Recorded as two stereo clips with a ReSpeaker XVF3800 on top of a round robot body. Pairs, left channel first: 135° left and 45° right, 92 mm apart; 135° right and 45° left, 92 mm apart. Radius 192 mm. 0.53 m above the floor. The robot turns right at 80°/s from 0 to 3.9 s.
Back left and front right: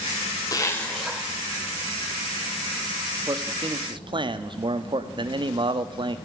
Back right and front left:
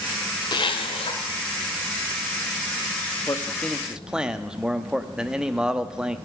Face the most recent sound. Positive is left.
turn(degrees=-35)